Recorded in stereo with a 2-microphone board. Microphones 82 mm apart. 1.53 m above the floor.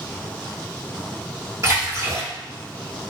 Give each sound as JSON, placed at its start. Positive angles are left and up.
{"t": 1.6, "sound": "a splash", "side_deg": -40, "distance_m": 1.6}